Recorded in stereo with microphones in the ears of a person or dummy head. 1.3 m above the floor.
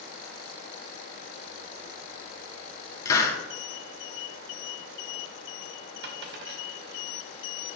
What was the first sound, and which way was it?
A hiss, 20° left (ahead or behind).